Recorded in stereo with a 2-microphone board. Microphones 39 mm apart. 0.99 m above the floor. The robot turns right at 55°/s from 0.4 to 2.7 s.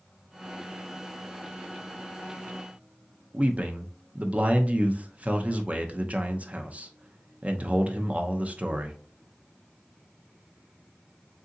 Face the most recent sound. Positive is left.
turn(degrees=-35)  # may be behind; listen again after turning